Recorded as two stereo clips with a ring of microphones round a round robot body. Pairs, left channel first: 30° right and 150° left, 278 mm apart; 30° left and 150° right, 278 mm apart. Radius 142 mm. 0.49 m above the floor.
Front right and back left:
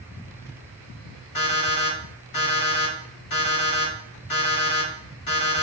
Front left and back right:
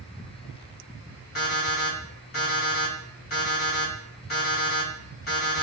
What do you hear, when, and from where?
1.4 s an alarm clock: 25° right, 1.8 m